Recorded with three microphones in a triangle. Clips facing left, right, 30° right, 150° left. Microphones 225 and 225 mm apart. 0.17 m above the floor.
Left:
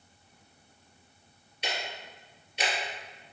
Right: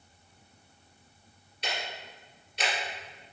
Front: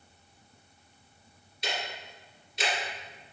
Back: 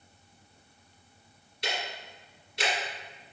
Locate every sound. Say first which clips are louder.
1.6 s ticking: left 1 dB, even; 170° left, 1.6 m